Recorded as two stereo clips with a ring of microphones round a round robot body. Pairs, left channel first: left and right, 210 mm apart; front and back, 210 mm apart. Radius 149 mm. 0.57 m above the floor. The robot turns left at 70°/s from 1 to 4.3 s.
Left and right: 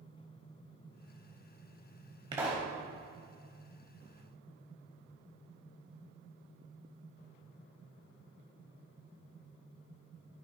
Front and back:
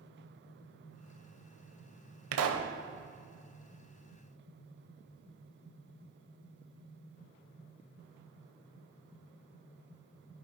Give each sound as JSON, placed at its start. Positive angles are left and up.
{"t": 2.3, "sound": "a pop", "azimuth_deg": -165, "distance_m": 0.8}